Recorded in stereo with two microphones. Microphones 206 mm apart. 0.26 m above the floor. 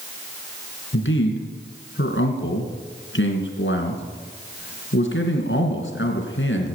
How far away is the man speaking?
About 2.5 m.